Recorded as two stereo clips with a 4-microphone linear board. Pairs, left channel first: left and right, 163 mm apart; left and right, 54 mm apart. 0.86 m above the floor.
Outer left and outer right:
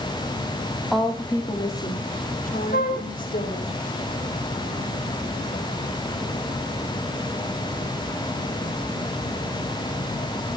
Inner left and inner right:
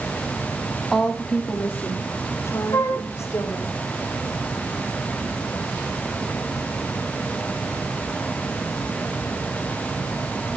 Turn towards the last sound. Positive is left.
turn(degrees=75)  # may be behind; listen again after turning